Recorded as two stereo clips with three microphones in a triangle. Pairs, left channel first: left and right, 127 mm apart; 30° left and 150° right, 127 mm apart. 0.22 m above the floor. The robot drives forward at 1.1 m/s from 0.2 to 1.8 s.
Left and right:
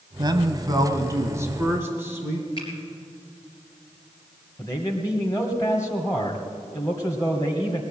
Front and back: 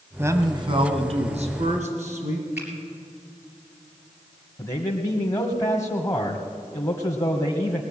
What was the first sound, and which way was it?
A man speaking, 95° right.